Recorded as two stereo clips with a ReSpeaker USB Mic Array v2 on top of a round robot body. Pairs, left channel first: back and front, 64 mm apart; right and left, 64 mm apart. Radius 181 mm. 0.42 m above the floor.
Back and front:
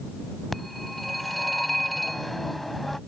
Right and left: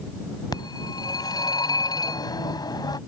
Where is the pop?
I don't hear a pop.